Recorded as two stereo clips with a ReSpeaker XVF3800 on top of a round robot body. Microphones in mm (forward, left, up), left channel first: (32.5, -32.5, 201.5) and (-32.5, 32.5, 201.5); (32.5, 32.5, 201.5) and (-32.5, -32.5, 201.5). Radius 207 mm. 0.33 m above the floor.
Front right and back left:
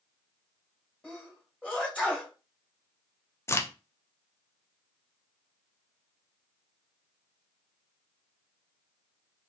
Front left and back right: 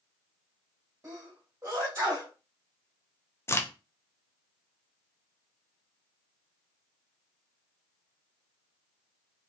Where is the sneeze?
105° right, 1.7 m.